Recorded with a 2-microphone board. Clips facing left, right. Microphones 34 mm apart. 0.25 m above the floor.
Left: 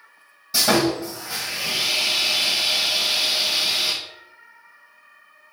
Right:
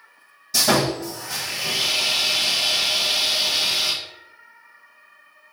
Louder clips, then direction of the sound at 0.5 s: Left 1 dB; 15° left (ahead or behind).